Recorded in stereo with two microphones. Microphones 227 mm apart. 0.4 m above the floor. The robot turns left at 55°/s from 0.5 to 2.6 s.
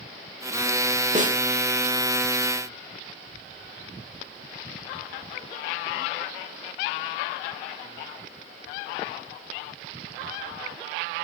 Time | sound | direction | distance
1.1 | a snare drum | 35° right (ahead or behind) | 1.1 m